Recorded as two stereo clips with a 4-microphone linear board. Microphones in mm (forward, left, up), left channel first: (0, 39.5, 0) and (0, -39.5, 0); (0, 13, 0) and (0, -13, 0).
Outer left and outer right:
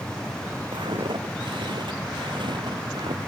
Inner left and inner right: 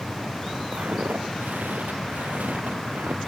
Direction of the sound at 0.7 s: 85° right.